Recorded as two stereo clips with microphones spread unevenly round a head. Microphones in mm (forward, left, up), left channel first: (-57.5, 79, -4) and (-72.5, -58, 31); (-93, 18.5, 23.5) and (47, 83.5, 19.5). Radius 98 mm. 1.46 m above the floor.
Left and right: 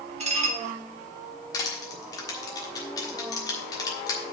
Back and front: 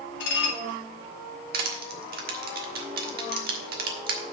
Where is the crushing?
5° left, 1.4 m.